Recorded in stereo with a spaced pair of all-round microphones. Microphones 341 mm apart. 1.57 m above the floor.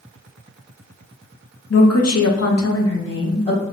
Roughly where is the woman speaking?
Left.